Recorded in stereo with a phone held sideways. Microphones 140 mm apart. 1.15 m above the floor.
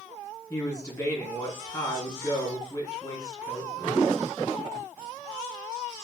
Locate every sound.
0.5 s a man speaking: 25° left (ahead or behind), 2 m